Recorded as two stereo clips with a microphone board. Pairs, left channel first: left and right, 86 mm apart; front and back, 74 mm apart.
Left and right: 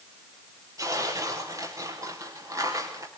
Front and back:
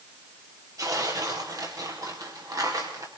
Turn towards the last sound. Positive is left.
turn(degrees=-140)